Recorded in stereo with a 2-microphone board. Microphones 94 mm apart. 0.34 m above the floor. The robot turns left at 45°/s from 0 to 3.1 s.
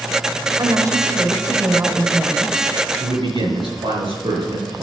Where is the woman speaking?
90° right, 1.7 m; by 2.8 s 170° left, 1.7 m.